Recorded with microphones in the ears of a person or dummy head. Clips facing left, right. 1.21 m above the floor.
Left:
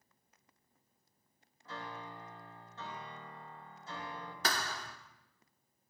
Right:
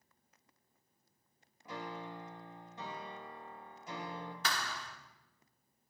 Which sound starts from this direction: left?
A thud, at 4.4 s.